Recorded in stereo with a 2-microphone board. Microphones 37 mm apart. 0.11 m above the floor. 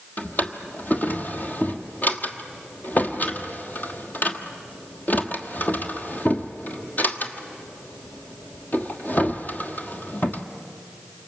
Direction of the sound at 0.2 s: 50° left (ahead or behind).